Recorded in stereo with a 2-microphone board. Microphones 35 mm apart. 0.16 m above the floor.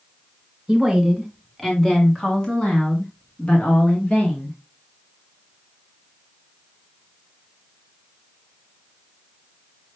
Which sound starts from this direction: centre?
A woman speaking, at 0.7 s.